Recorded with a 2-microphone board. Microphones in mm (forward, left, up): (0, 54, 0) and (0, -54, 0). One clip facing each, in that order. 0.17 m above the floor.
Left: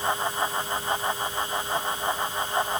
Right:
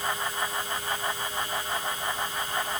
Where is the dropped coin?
I don't hear a dropped coin.